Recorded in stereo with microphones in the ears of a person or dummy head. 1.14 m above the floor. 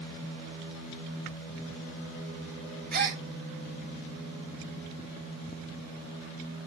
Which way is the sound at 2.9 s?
50° right (ahead or behind).